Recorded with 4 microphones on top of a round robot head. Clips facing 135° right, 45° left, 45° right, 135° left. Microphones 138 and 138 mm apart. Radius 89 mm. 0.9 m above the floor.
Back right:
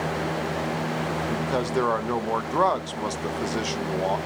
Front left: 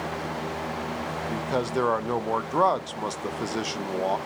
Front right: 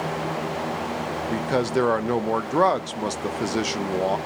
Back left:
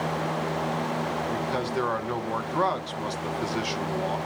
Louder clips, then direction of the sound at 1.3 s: Even, front right 10 dB; 40° right.